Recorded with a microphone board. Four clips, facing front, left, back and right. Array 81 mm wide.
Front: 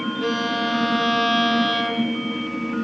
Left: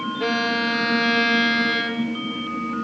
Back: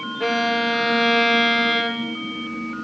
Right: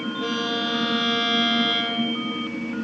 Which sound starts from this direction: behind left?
A violin, at 0.2 s.